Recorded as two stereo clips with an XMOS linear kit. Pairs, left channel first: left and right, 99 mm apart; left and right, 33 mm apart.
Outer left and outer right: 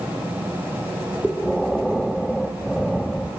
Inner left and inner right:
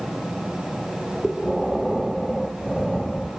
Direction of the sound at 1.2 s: Centre (ahead or behind).